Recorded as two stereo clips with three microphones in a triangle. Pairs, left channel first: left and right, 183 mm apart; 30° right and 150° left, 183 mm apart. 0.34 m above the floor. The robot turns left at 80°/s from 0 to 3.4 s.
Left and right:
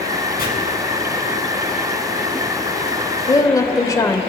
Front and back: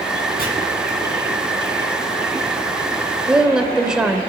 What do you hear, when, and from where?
0.4 s chopping: 120° left, 4 m; by 0.5 s 115° left, 4 m
3.3 s a woman speaking: 80° left, 0.9 m; by 4.2 s 70° left, 0.9 m